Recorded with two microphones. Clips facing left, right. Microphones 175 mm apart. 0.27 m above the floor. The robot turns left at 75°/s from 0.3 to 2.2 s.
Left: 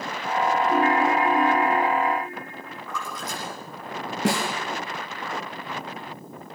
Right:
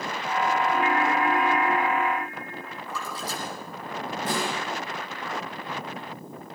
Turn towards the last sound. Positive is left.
turn(degrees=75)  # may be behind; listen again after turning